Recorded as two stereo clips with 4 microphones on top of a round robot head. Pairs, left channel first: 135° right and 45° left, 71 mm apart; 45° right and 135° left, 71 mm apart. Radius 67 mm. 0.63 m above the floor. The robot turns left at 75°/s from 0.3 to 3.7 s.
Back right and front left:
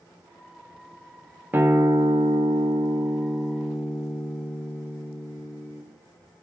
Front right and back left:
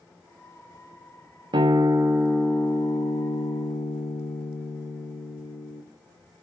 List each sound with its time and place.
1.5 s a guitar: 110° left, 0.6 m; by 5.8 s 55° right, 0.6 m